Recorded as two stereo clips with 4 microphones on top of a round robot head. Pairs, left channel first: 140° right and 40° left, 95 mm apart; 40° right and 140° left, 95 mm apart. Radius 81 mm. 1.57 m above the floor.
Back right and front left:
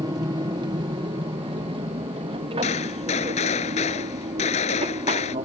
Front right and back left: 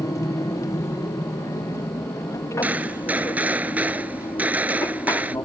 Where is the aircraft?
10° left; by 5.5 s 20° left.